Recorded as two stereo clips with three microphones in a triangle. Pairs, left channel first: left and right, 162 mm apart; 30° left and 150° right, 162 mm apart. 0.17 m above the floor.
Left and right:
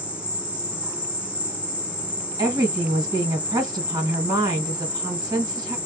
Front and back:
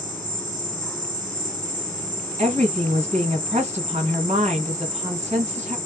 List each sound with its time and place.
0.0 s an insect: 140° right, 1.6 m
2.4 s a woman speaking: 140° right, 1.7 m